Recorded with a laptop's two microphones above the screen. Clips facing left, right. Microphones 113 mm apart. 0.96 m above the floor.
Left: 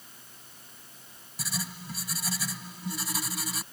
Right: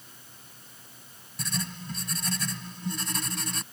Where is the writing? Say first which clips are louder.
Right 3 dB; 10° left (ahead or behind).